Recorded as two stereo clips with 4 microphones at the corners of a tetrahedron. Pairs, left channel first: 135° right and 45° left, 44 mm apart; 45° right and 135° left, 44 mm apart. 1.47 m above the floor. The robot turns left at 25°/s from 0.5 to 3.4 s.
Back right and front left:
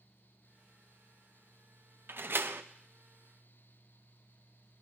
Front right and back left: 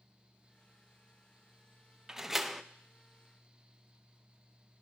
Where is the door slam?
60° left, 0.5 m; by 2.6 s 45° left, 0.5 m.